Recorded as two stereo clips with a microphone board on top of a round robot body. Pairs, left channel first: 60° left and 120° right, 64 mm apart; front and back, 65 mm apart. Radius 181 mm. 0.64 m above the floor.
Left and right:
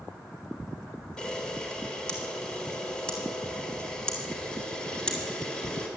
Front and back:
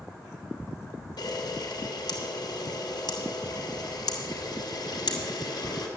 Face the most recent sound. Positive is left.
turn(degrees=-15)